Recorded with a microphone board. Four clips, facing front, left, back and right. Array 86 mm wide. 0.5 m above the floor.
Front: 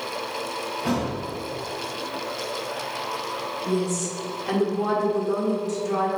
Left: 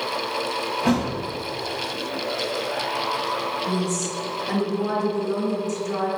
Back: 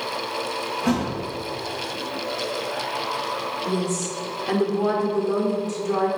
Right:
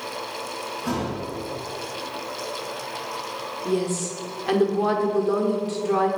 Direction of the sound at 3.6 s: 95° right.